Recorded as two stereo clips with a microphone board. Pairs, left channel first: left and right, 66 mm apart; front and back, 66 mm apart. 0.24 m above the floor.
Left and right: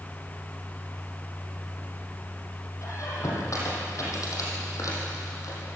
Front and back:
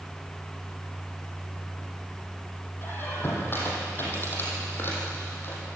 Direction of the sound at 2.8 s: 55° left.